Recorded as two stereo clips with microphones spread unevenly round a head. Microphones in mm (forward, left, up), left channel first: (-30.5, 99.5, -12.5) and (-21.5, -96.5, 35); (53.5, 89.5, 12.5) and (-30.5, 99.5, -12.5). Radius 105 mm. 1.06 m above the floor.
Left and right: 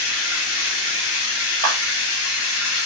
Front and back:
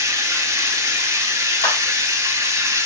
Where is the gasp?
I don't hear a gasp.